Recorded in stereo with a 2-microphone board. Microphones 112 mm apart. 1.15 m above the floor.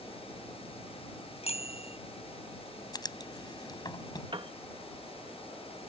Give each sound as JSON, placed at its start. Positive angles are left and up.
{"t": 1.4, "sound": "a bicycle bell", "side_deg": 65}
{"t": 2.9, "sound": "writing", "side_deg": 35}
{"t": 4.3, "sound": "a piano", "side_deg": -50}